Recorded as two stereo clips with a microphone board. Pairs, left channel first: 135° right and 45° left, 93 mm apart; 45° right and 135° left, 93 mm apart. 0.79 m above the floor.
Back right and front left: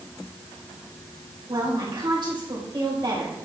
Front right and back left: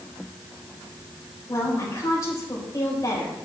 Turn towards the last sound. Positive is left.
turn(degrees=10)